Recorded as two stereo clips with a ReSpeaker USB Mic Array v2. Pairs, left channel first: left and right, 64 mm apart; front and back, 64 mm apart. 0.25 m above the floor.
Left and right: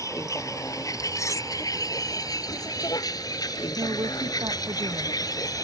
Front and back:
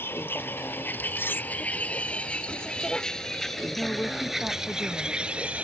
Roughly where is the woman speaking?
Right.